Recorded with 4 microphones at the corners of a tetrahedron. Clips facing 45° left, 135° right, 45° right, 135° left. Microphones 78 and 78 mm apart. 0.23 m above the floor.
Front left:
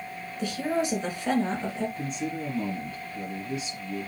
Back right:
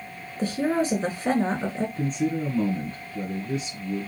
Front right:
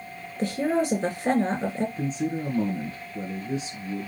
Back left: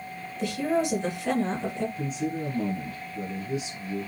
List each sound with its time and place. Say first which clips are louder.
0.4 s a woman speaking: back right 4 dB, front right 2 dB; 90° right, 3 m
2.0 s a man speaking: back right 6 dB, front right 2 dB; 95° right, 2 m